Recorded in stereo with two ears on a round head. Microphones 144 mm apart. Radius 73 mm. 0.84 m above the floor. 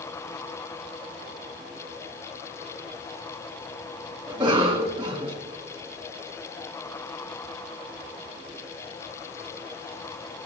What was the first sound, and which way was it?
A cough, 30° right (ahead or behind).